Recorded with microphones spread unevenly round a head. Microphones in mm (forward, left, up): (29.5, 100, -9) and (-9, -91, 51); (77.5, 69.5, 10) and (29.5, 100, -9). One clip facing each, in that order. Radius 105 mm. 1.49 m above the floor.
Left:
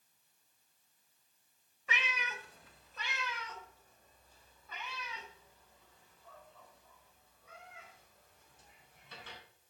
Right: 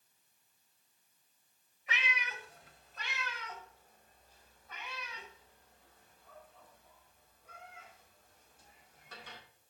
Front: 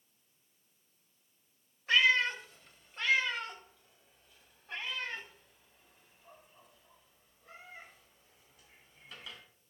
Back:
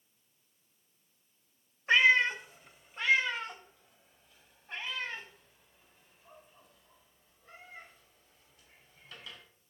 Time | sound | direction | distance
1.9 | a cat meowing | 70° left | 1.3 m